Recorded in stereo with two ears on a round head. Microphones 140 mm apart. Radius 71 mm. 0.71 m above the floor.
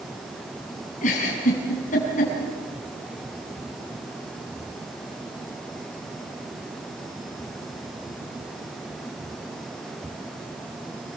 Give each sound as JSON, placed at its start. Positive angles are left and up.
{"t": 1.0, "sound": "a giggle", "side_deg": 55, "distance_m": 7.5}